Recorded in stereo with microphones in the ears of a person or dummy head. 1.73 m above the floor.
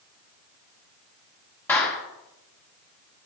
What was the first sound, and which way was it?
A clap, 10° left (ahead or behind).